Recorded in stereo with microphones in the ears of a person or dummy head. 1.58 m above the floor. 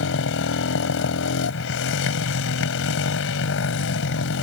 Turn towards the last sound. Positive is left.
turn(degrees=65)  # may be behind; listen again after turning